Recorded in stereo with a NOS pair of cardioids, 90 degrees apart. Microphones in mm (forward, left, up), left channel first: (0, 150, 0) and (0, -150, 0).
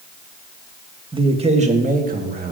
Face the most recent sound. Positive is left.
turn(degrees=-30)